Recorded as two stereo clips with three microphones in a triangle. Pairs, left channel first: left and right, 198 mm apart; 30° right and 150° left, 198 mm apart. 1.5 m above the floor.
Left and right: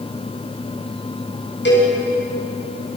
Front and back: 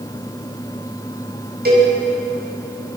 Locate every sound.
1.6 s a cowbell: 115° left, 8.5 m